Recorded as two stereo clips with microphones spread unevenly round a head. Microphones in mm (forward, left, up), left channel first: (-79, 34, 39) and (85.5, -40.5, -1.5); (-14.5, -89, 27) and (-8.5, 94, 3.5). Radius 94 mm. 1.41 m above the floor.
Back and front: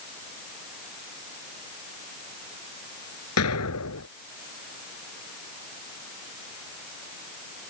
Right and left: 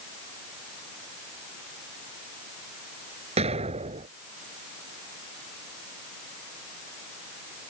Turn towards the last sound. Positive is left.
turn(degrees=150)